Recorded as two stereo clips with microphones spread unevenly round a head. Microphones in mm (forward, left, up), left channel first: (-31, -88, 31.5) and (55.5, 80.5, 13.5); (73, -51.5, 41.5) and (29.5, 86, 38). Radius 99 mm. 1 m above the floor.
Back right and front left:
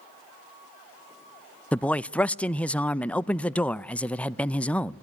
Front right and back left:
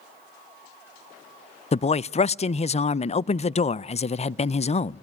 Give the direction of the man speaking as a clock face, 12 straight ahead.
1 o'clock.